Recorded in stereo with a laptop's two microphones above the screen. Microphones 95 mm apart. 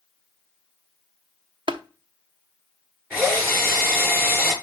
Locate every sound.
1.7 s tapping: 60° right (ahead or behind), 0.8 m
3.1 s a drill: 20° right (ahead or behind), 5.5 m